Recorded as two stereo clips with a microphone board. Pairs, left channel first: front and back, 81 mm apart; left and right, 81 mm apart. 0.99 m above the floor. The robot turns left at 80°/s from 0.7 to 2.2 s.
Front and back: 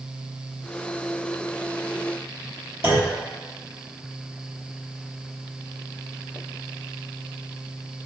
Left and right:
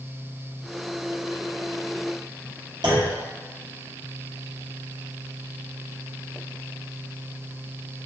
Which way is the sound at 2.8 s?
120° right.